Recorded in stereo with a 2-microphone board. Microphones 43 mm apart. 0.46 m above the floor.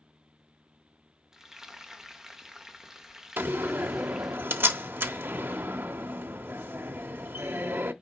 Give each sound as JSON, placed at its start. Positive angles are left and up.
{"t": 1.3, "sound": "frying", "side_deg": -15, "distance_m": 1.1}
{"t": 3.4, "sound": "a door slam", "side_deg": -60, "distance_m": 0.7}